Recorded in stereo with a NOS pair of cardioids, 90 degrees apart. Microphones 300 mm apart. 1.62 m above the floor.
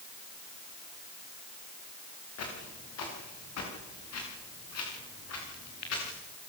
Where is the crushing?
No crushing in this recording.